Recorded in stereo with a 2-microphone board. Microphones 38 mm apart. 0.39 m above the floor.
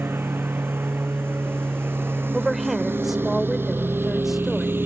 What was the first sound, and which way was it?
A lawn mower, 80° right.